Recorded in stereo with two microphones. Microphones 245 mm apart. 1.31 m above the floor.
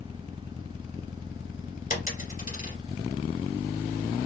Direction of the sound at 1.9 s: 35° left (ahead or behind).